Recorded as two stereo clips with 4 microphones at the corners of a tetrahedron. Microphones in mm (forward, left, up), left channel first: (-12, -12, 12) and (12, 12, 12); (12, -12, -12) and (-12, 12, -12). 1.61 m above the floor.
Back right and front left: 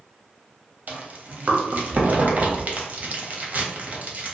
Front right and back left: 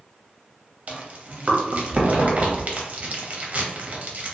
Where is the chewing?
85° left, 0.6 m.